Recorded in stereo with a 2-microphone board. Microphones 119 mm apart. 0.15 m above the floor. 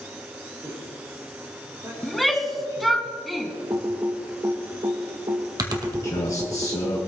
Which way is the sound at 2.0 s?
Centre (ahead or behind).